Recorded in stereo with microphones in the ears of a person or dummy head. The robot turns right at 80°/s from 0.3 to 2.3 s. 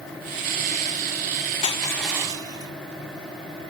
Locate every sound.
1.6 s crushing: 140° left, 0.7 m; by 2.7 s 165° right, 0.7 m